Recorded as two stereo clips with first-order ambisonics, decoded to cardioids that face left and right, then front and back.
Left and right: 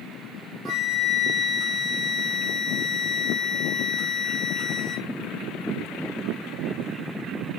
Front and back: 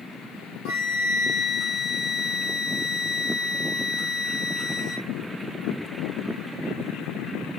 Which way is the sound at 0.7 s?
35° right.